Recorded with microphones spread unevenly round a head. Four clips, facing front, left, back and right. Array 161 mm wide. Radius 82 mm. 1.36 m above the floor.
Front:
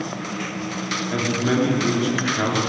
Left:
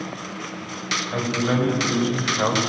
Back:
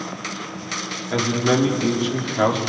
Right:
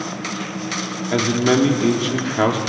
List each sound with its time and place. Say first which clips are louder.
1.1 s a man speaking: right 6 dB, back 3 dB; 100° right, 3.5 m